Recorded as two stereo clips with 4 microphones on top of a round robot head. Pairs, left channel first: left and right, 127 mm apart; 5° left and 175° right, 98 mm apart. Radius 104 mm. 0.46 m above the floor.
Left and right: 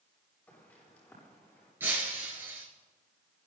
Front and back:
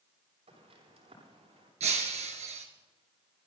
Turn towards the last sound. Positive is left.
turn(degrees=-165)